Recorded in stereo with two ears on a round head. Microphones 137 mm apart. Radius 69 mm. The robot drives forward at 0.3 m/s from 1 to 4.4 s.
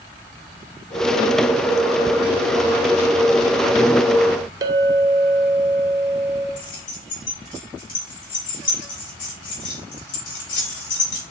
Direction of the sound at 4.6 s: 25° right (ahead or behind).